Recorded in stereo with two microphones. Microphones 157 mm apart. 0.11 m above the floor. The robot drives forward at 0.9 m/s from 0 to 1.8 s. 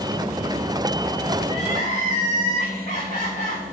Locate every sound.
1.4 s crying: 55° left (ahead or behind), 5 m; by 3.6 s 50° left (ahead or behind), 5 m